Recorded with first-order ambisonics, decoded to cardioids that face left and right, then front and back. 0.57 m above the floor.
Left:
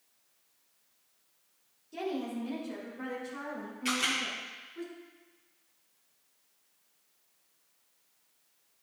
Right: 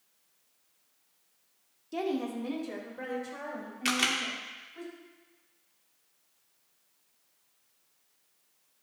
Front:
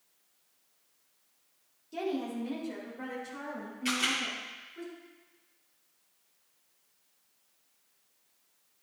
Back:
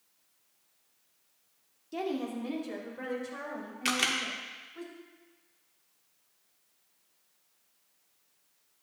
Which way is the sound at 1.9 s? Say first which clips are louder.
Right 3 dB, even; 120° right.